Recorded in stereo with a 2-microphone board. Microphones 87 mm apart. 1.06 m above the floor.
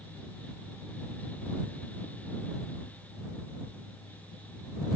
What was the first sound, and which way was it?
Only background noise.